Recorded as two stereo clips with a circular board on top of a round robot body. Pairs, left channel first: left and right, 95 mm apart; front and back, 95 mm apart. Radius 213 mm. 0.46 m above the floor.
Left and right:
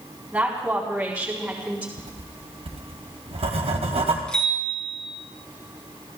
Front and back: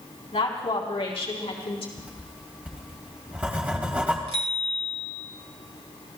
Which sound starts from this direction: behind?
A bicycle bell, at 4.3 s.